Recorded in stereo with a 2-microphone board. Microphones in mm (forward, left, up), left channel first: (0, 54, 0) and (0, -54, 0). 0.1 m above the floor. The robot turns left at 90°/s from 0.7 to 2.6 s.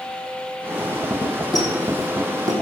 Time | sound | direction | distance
1.5 | a squeak | 40° left (ahead or behind) | 3 m